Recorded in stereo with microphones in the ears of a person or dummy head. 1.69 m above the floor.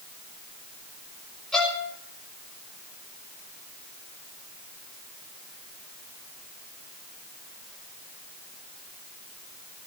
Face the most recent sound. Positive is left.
turn(degrees=5)  # may be behind; listen again after turning